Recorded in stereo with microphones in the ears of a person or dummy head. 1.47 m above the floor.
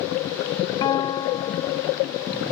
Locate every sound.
0.8 s a guitar: 25° left (ahead or behind)